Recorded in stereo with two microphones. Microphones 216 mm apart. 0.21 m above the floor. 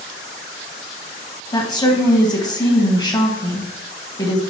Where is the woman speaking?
20° left (ahead or behind), 1.4 m.